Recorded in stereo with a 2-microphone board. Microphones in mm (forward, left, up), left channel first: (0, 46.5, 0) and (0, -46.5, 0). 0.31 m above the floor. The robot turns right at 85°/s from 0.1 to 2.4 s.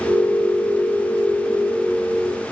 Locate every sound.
Only background noise.